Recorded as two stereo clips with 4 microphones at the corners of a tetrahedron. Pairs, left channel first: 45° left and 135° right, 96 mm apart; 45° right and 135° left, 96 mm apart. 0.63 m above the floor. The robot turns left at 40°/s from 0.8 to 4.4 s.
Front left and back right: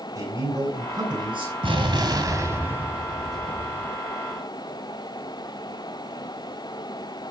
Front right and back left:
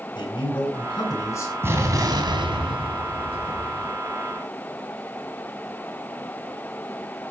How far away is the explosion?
About 2.5 m.